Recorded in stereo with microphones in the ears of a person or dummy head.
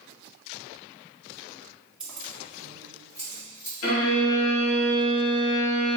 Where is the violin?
75° left (ahead or behind), 1.0 m.